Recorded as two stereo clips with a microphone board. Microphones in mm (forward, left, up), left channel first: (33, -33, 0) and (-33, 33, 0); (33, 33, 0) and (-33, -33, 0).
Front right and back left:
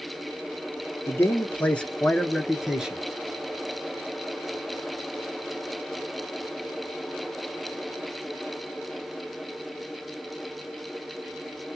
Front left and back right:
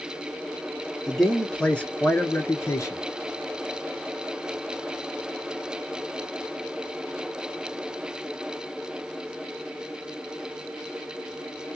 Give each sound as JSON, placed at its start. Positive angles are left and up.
{"t": 1.1, "sound": "a man speaking", "azimuth_deg": -45, "distance_m": 1.1}